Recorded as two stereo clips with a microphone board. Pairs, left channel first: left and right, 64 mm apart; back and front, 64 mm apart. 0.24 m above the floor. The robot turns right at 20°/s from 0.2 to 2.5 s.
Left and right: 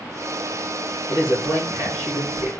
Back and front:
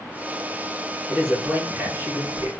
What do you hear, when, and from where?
1.1 s a man speaking: 70° right, 2.5 m; by 2.5 s 45° right, 2.5 m